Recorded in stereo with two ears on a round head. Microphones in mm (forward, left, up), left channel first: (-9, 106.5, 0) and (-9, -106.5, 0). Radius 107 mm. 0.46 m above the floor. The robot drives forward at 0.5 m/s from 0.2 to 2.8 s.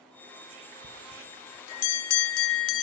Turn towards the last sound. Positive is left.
turn(degrees=60)  # may be behind; listen again after turning